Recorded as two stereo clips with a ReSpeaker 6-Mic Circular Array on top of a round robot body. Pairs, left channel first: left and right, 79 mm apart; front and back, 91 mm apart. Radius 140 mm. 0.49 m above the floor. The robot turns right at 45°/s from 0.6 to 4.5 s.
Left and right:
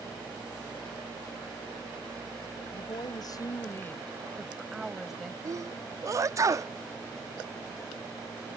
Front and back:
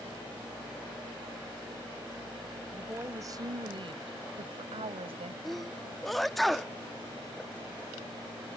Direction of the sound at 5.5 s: 90° right.